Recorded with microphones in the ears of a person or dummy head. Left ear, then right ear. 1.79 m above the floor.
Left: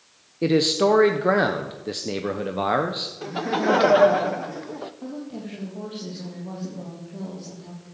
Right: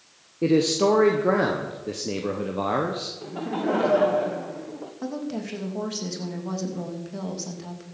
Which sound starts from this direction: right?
A woman speaking, at 5.0 s.